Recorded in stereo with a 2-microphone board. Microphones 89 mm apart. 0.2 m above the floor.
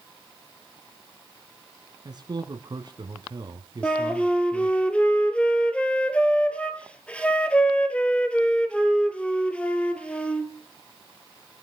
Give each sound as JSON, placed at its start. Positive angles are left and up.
{"t": 2.0, "sound": "a man speaking", "side_deg": -50, "distance_m": 1.6}
{"t": 3.8, "sound": "a flute", "side_deg": 10, "distance_m": 1.9}